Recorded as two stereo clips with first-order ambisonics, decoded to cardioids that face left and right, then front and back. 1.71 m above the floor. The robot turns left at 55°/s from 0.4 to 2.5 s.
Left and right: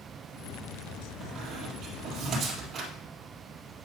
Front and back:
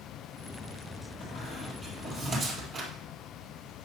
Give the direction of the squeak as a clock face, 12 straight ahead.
2 o'clock.